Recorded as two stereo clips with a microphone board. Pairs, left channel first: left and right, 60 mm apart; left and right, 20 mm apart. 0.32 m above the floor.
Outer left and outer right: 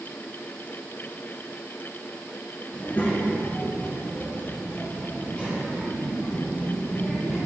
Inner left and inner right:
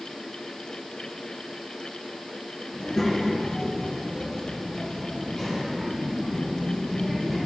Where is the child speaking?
35° left (ahead or behind), 3 m; by 7.4 s 20° left (ahead or behind), 8.5 m.